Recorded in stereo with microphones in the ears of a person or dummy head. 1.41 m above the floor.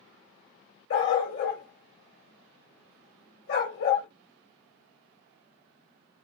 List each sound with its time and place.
0.9 s a dog barking: 60° left (ahead or behind), 2 m